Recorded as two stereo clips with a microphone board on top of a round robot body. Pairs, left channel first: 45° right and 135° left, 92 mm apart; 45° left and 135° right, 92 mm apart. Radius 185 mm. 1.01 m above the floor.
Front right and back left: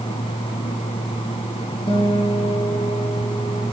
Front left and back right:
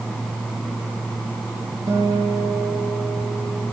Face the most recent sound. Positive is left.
turn(degrees=-80)